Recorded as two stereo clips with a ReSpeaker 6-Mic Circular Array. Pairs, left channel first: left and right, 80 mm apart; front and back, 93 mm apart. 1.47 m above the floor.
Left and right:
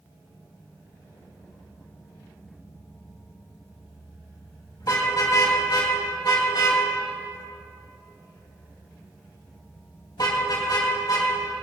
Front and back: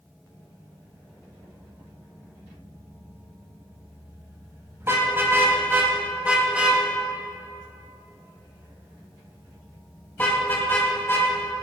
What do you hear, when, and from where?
4.8 s a car horn: 120° left, 3.5 m; by 11.6 s 55° left, 3.5 m